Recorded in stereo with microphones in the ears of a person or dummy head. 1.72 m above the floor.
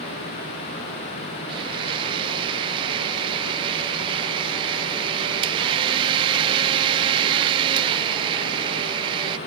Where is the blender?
25° right (ahead or behind).